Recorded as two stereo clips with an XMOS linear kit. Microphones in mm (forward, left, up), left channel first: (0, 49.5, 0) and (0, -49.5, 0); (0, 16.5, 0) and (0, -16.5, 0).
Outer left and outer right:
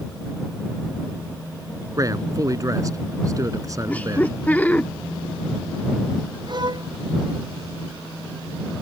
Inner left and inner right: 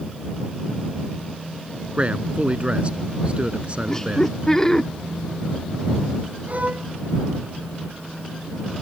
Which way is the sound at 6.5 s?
45° right (ahead or behind).